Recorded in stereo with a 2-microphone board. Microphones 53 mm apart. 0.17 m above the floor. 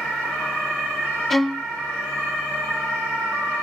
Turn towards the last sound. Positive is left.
turn(degrees=5)  # may be behind; listen again after turning